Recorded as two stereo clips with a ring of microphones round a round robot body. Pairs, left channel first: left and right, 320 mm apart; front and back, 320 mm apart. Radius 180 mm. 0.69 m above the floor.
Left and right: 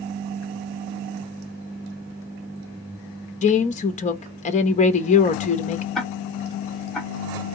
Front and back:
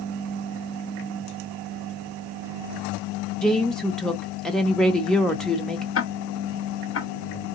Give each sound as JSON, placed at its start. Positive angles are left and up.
{"t": 3.4, "sound": "a woman speaking", "azimuth_deg": 85, "distance_m": 0.6}
{"t": 6.0, "sound": "ticking", "azimuth_deg": 0, "distance_m": 0.9}